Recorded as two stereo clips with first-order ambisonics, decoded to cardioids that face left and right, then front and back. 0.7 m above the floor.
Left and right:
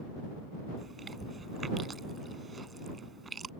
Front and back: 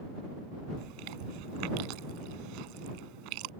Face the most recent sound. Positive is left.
turn(degrees=-165)